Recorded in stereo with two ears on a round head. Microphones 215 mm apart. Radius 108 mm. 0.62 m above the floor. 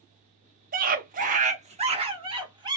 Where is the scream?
35° right (ahead or behind), 0.7 m; by 2.8 s 20° right (ahead or behind), 1.4 m.